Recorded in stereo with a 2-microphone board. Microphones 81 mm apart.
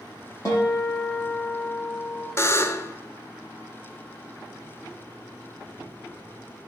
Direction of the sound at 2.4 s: 35° left (ahead or behind).